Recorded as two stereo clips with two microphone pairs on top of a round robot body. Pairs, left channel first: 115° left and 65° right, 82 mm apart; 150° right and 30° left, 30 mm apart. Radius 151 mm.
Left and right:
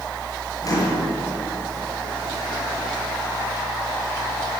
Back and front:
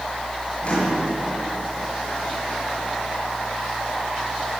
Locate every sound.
0.6 s a microwave: 160° left, 7 m